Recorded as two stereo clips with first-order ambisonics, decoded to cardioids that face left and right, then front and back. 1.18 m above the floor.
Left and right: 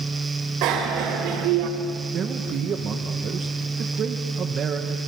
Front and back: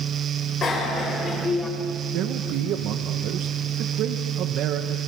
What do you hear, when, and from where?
0.6 s a bicycle bell: 65° right, 4 m; by 1.7 s 75° right, 2 m
2.1 s a man speaking: 145° right, 1.2 m